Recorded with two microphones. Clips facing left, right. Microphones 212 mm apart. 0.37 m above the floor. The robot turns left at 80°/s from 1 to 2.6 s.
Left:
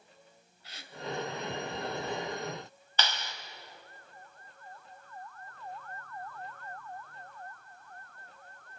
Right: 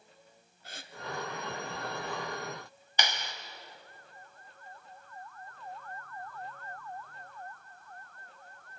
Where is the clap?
15° right (ahead or behind), 2 m.